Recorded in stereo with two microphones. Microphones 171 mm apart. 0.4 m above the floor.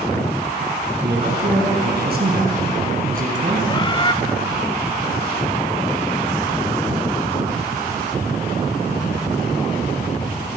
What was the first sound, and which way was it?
A man speaking, 75° right (ahead or behind).